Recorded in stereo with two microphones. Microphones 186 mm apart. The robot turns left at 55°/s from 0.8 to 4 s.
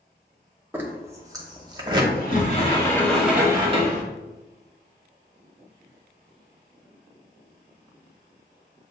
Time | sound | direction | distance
0.7 | a zipper | 10° right (ahead or behind) | 0.8 m
2.1 | a sliding door | 60° left | 1.0 m